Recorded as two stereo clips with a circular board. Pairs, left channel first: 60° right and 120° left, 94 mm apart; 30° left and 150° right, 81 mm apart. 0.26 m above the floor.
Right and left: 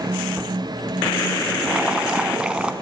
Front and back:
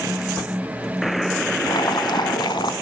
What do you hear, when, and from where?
1.6 s boiling: 40° left, 0.8 m